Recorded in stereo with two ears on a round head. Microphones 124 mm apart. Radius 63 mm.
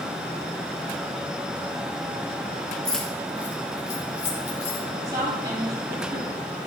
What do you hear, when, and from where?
2.9 s keys jangling: 5° left (ahead or behind), 3 m; by 4.8 s 35° left (ahead or behind), 4 m
5.0 s a woman speaking: 35° right (ahead or behind), 5 m